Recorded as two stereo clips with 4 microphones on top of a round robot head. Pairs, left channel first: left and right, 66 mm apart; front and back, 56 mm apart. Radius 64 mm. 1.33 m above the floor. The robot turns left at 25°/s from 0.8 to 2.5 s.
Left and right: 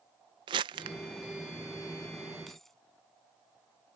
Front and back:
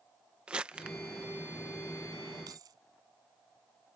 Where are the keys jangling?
Straight behind; by 2.8 s 175° left.